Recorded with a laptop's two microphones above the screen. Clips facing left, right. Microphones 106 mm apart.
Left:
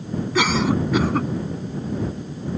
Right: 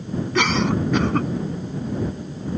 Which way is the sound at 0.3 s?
5° left (ahead or behind).